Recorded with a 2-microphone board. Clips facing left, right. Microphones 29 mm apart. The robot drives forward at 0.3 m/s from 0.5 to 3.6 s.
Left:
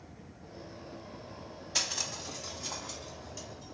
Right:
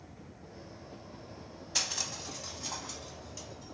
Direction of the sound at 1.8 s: 10° left (ahead or behind).